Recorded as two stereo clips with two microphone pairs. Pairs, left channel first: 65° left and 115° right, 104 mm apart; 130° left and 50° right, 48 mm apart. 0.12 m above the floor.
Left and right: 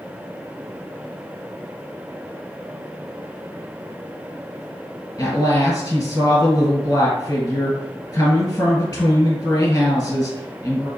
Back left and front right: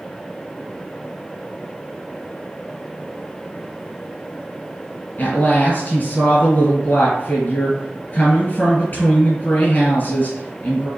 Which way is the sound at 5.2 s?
90° left.